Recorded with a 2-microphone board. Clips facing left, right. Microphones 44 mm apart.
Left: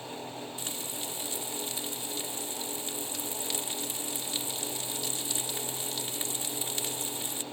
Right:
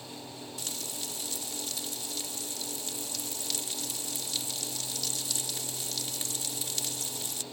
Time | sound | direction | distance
0.6 | frying | 25° left (ahead or behind) | ?